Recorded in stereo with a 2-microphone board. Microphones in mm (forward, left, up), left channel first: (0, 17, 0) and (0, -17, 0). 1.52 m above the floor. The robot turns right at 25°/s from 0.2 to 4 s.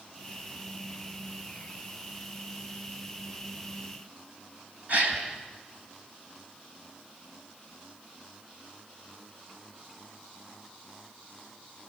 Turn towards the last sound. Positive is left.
turn(degrees=-50)  # may be behind; listen again after turning